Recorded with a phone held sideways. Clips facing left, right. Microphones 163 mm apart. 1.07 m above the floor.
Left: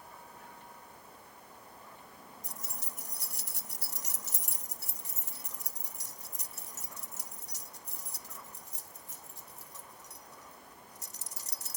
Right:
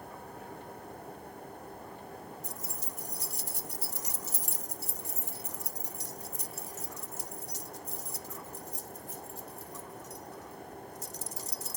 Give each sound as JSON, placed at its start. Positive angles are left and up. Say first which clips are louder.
{"t": 0.0, "sound": "a fan", "louder": "right 7 dB", "side_deg": -55}
{"t": 2.4, "sound": "keys jangling", "louder": "right 6 dB", "side_deg": 70}